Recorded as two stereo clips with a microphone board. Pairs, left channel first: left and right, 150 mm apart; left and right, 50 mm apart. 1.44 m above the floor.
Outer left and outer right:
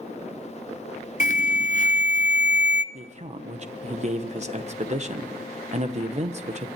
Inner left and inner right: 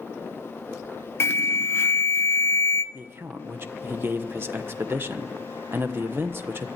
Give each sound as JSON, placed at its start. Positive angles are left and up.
{"t": 1.2, "sound": "an alarm", "side_deg": 50, "distance_m": 0.8}
{"t": 2.9, "sound": "a man speaking", "side_deg": -45, "distance_m": 1.2}